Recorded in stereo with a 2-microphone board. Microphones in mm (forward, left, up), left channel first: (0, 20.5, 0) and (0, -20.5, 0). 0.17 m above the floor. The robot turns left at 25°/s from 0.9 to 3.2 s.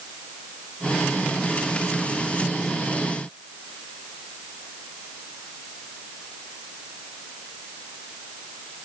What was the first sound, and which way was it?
Only background noise.